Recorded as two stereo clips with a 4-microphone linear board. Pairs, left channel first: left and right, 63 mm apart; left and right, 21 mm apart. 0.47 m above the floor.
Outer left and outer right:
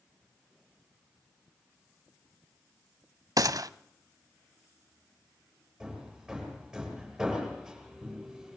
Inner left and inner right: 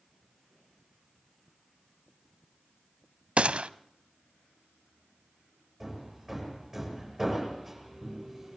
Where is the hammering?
10° right (ahead or behind), 8.5 m.